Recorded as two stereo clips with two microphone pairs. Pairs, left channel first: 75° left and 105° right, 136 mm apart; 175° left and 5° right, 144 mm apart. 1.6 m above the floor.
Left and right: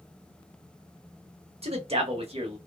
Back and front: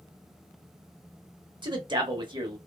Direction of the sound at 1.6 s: 60° right.